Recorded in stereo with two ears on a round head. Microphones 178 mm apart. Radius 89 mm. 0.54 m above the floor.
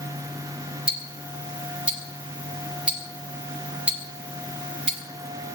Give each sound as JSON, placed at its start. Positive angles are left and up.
{"t": 0.9, "sound": "ticking", "side_deg": -5, "distance_m": 1.7}